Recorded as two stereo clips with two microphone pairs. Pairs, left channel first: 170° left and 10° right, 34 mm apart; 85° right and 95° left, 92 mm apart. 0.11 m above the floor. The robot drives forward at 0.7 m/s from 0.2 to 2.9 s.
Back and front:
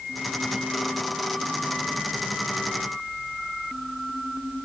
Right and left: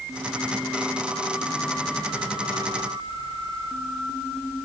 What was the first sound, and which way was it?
Only background noise.